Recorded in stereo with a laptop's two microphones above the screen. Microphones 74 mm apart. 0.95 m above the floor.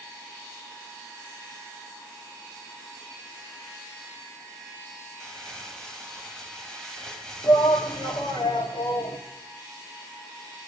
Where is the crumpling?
10° left (ahead or behind), 2 m.